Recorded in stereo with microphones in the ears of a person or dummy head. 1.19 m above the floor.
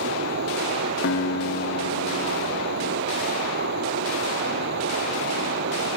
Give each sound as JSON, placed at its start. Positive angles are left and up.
{"t": 0.0, "sound": "running water", "side_deg": -65}
{"t": 1.0, "sound": "a guitar", "side_deg": 65}